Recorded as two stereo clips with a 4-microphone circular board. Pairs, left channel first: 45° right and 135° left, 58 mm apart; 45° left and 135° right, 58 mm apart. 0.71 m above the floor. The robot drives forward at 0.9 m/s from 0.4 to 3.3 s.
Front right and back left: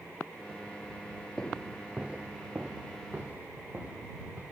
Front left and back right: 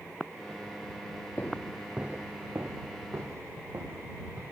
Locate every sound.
1.4 s footsteps: 25° left, 0.8 m; by 4.4 s 160° right, 3 m